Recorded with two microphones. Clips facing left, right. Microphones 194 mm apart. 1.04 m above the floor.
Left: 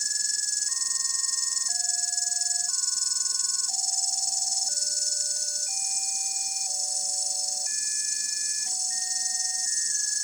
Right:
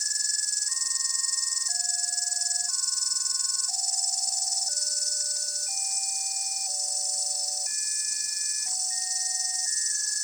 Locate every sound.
0.0 s an insect: 25° left (ahead or behind)